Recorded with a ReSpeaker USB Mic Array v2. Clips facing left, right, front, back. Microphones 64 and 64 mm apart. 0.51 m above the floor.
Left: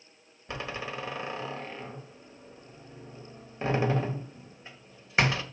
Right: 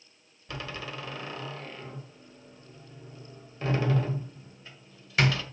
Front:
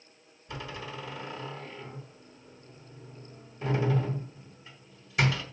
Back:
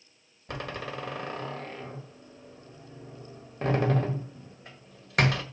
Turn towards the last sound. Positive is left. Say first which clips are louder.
# left 2 dB, back 4 dB
turn(degrees=155)